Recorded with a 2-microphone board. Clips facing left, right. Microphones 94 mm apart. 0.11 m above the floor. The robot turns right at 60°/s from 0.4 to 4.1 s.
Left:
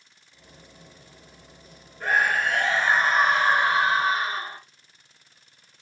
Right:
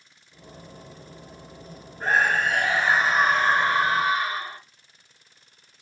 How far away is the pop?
No pop in this recording.